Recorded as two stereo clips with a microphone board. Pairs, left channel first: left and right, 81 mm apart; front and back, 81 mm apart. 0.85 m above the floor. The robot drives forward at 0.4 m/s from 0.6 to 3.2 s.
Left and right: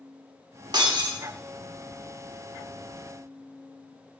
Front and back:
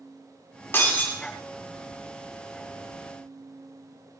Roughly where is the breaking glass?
Ahead right.